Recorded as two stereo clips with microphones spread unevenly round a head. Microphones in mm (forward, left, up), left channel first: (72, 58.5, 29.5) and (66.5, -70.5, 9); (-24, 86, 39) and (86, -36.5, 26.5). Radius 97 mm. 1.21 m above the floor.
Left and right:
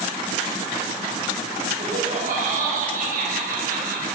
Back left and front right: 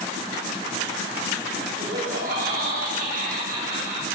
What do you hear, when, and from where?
1.8 s laughter: 90° right, 7 m; by 4.1 s 100° right, 8.5 m